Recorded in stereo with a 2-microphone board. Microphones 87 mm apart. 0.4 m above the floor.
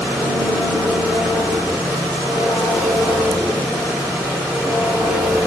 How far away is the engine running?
About 5 m.